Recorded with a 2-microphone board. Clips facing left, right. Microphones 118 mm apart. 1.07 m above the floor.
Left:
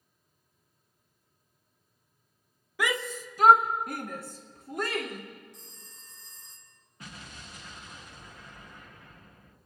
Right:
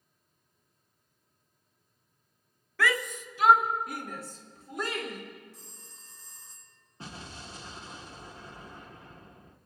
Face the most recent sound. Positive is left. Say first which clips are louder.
# right 3 dB
turn(degrees=-30)  # may be behind; listen again after turning